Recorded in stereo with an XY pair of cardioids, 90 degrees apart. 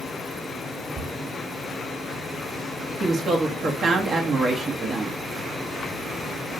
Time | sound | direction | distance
0.9 | a cupboard door | 25° right | 1.7 m
3.0 | a woman speaking | 55° right | 1.3 m